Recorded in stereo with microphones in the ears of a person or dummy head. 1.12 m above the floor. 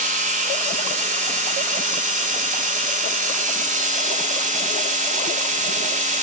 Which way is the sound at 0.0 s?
30° right (ahead or behind).